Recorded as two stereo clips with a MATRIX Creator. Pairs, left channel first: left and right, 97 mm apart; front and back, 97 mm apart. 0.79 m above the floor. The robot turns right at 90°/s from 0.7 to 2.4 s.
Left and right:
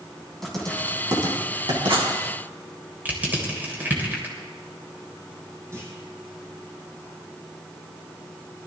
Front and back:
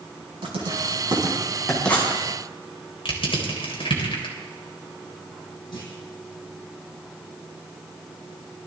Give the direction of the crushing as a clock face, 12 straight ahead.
1 o'clock.